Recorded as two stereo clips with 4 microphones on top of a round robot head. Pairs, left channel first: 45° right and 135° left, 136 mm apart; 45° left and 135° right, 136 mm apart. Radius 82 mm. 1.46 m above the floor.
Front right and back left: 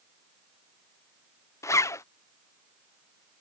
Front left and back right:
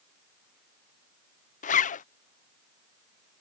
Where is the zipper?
25° left.